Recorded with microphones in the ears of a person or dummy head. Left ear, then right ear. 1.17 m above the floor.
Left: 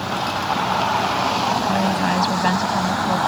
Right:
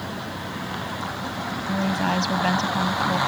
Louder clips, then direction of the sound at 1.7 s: Left 5 dB; 5° left (ahead or behind).